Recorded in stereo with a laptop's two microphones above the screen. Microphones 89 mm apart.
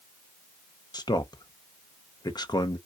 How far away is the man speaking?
About 0.5 m.